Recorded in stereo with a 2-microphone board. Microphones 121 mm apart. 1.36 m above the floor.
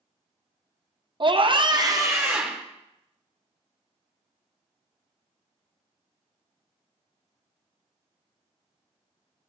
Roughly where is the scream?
Right.